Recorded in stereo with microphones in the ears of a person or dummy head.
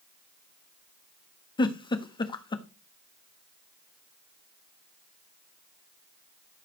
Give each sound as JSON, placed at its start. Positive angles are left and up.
{"t": 1.6, "sound": "a giggle", "side_deg": 30, "distance_m": 1.3}